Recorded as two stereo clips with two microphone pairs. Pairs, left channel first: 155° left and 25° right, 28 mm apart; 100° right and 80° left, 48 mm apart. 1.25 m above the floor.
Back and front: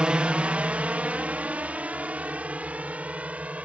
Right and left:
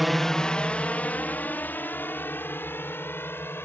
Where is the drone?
10° right; by 3.7 s 60° right.